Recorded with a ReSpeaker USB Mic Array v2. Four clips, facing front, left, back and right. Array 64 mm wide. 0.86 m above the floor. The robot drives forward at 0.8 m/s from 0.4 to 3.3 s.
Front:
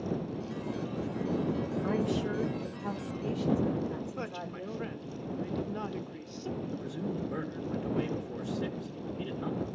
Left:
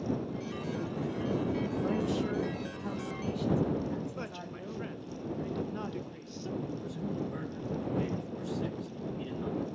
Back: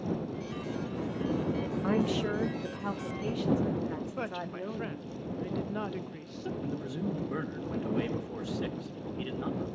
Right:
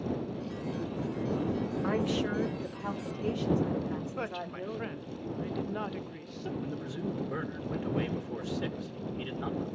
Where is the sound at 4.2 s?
130° right, 0.6 m.